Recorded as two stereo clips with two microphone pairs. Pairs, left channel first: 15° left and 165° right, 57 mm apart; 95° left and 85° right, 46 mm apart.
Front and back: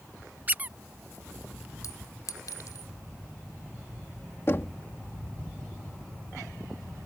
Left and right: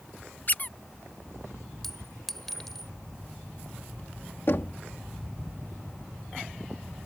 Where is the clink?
10° left.